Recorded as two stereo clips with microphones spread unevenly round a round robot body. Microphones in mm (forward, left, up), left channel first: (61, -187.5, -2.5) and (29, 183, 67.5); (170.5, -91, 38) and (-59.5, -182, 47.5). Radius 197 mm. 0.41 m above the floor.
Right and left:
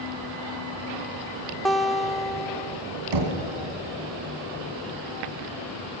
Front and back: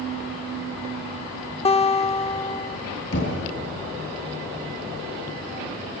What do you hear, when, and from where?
1.6 s a guitar: 15° right, 0.8 m
3.1 s knocking: 75° left, 3.5 m